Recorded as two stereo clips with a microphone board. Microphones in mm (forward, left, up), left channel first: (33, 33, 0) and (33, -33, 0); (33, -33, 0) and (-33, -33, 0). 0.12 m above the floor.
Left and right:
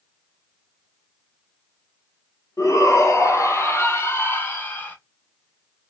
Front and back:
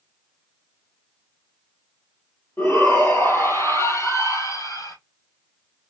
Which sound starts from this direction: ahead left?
A shout, at 2.6 s.